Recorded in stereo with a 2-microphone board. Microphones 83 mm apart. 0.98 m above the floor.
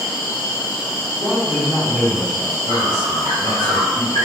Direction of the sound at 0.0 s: 85° left.